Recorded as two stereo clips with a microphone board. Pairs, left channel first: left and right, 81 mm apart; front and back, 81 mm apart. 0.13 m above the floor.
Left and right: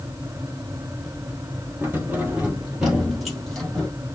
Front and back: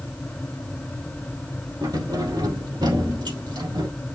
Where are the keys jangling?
150° right, 3 m; by 3.9 s 170° left, 3.5 m.